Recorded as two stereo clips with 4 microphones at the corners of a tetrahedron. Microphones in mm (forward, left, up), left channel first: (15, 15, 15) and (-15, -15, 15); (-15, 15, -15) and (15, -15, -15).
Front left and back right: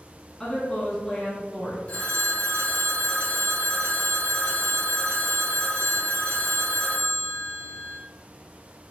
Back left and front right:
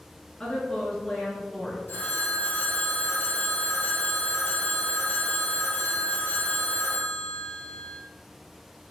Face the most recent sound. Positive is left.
turn(degrees=100)